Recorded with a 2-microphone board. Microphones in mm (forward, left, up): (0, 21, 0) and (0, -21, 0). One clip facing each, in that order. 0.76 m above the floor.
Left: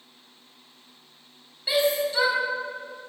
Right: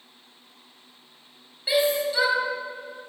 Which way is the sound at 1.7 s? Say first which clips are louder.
Right 1 dB; 10° right (ahead or behind).